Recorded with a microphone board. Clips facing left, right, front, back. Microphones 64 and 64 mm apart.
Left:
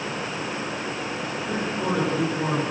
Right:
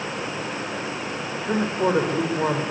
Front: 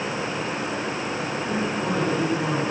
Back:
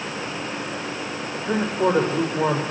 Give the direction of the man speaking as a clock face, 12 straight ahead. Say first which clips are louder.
Right 6 dB, back 7 dB; 5 o'clock.